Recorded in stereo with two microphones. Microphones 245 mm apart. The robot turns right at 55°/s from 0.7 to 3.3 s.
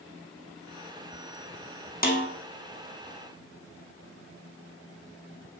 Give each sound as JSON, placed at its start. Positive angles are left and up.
{"t": 2.0, "sound": "a snare drum", "side_deg": 35, "distance_m": 1.6}